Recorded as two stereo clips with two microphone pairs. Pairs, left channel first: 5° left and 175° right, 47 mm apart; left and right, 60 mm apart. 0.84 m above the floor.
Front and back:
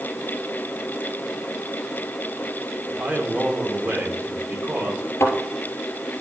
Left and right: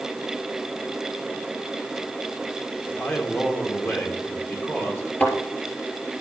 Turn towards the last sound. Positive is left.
turn(degrees=25)